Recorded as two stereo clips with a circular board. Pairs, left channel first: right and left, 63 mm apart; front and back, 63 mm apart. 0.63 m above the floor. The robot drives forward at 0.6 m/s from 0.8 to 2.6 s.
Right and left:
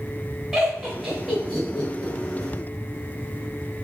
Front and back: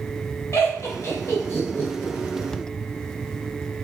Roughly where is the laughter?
Ahead.